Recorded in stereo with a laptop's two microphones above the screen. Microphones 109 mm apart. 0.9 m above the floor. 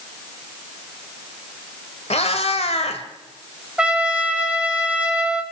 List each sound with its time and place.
2.1 s a cat meowing: 75° left (ahead or behind), 2 m
3.8 s a trumpet: 10° right (ahead or behind), 1.6 m